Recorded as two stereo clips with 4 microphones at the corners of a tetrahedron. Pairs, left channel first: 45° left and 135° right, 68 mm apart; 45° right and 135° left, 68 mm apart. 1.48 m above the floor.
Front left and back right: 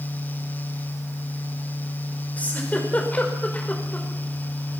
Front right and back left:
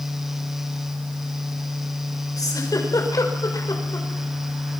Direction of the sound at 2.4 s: 20° right.